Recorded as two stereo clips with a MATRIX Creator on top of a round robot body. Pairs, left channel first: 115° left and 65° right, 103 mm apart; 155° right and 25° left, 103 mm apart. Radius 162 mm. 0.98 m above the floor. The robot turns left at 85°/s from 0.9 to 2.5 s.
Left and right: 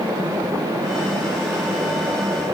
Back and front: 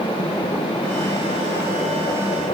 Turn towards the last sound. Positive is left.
No sound to turn to.